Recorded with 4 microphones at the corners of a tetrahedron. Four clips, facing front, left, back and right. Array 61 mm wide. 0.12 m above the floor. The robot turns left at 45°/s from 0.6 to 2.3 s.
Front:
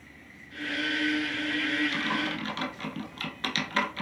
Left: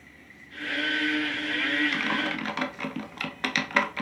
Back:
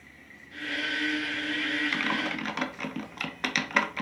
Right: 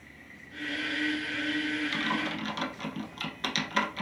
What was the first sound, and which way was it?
Typing on a keyboard, 145° left.